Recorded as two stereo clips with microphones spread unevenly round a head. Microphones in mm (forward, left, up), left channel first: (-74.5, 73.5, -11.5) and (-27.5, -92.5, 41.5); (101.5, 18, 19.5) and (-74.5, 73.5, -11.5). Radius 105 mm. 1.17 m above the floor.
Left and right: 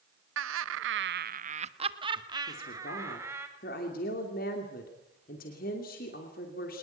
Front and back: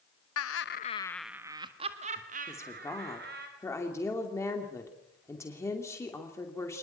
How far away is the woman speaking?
About 2.5 m.